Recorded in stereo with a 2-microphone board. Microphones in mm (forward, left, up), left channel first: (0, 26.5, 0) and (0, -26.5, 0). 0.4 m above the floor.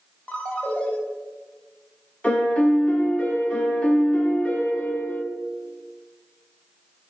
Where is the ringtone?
25° left (ahead or behind), 1.4 m.